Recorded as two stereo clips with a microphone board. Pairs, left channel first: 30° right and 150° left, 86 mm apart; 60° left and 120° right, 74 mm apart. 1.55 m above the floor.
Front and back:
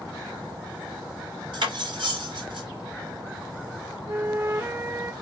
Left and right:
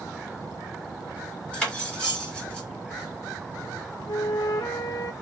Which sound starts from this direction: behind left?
Cutlery clinking, at 1.5 s.